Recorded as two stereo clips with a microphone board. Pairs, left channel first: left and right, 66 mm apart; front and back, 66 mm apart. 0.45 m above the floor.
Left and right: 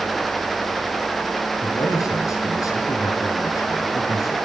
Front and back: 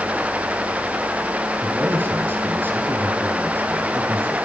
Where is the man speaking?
120° left, 7 m.